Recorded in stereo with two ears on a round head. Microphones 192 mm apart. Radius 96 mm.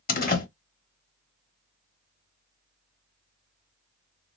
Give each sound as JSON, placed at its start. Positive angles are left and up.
{"t": 0.1, "sound": "a door slam", "side_deg": 45, "distance_m": 1.2}